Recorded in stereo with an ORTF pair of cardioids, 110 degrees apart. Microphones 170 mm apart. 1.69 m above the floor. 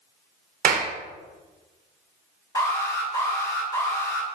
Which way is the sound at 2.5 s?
20° left.